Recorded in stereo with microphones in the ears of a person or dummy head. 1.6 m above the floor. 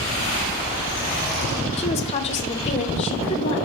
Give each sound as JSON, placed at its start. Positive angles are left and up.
{"t": 1.8, "sound": "a woman speaking", "side_deg": 35, "distance_m": 0.9}